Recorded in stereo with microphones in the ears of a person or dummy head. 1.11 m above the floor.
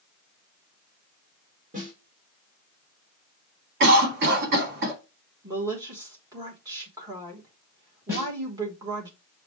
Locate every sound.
1.7 s a snare drum: 25° right (ahead or behind), 1.9 m
3.8 s a cough: 40° right (ahead or behind), 1.9 m
5.4 s a woman speaking: 10° right (ahead or behind), 1.1 m
8.1 s a snare drum: centre (ahead or behind), 2 m